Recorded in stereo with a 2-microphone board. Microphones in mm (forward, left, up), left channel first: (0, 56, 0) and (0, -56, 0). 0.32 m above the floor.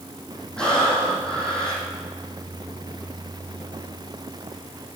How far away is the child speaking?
No child speaking in this recording.